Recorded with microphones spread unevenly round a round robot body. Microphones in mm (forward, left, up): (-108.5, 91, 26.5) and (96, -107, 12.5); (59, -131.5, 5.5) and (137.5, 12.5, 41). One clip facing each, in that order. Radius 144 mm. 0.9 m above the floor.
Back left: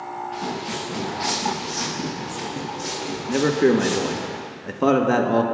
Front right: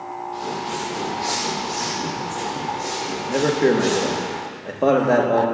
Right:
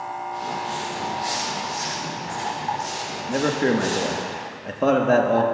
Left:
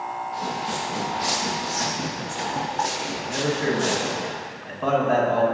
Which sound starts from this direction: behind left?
Footsteps, at 0.3 s.